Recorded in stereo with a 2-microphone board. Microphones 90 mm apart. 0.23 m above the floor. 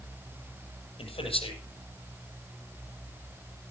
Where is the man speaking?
80° left, 8 m.